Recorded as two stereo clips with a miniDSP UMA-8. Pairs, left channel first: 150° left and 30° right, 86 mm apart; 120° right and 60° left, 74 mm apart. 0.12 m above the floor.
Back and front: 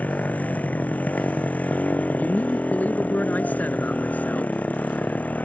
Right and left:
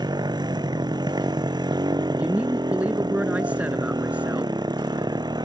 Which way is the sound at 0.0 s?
80° left.